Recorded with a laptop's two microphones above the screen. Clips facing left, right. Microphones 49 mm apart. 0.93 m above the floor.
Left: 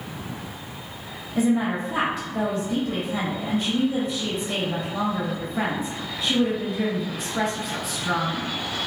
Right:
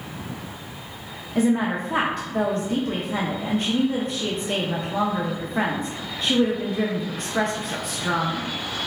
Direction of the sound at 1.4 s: 50° right (ahead or behind).